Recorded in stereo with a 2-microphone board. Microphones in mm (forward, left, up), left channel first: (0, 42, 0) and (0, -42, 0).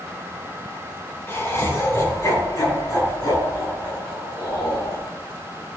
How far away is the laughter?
About 5 m.